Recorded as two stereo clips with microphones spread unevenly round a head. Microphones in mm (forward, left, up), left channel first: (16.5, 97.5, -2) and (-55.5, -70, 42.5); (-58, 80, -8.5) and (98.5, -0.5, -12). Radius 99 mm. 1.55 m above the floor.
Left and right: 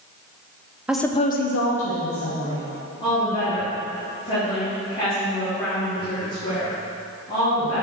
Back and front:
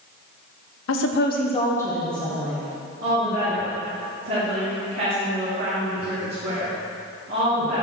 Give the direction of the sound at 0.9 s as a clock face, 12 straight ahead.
6 o'clock.